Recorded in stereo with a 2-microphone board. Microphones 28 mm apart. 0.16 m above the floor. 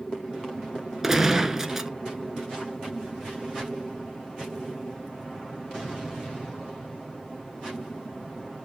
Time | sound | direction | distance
1.0 | a gunshot | 15° right (ahead or behind) | 0.7 m